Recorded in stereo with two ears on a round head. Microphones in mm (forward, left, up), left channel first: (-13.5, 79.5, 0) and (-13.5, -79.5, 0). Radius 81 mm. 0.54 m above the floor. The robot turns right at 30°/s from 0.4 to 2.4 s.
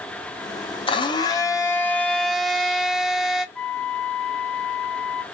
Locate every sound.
0.9 s a blender: 135° left, 0.8 m; by 3.5 s straight behind, 0.8 m
3.5 s a flute: 5° left (ahead or behind), 0.6 m